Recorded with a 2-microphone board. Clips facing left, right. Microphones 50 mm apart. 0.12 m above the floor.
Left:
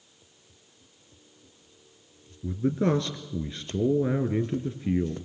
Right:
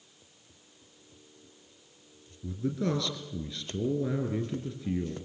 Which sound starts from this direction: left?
A man speaking, at 2.4 s.